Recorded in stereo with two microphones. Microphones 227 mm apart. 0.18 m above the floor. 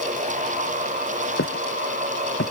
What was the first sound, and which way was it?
Footsteps, 70° left (ahead or behind).